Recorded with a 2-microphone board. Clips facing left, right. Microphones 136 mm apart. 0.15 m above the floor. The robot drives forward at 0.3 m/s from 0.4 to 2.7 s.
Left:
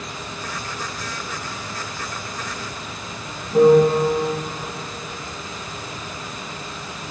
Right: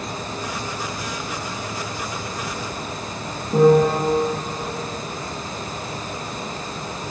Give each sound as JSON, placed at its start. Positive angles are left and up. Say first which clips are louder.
{"t": 3.5, "sound": "a piano", "louder": "left 2 dB", "side_deg": -60, "distance_m": 3.0}